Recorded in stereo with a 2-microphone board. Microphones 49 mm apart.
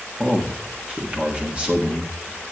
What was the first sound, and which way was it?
A man speaking, 25° right (ahead or behind).